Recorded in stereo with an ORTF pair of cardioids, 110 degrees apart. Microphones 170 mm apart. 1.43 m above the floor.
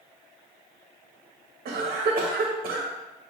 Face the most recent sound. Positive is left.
turn(degrees=-60)